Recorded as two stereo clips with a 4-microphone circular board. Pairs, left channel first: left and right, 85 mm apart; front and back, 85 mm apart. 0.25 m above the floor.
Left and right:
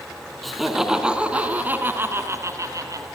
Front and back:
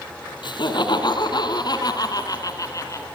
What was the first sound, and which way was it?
Laughter, straight ahead.